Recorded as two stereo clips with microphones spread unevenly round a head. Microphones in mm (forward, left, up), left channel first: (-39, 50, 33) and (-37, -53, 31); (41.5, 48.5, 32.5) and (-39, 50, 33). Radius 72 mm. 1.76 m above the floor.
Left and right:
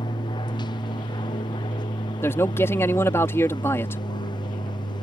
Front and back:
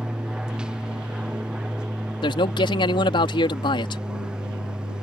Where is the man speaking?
20° left.